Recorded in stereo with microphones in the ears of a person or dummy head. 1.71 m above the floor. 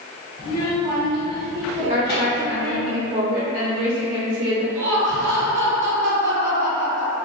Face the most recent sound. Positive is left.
turn(degrees=-45)  # may be behind; listen again after turning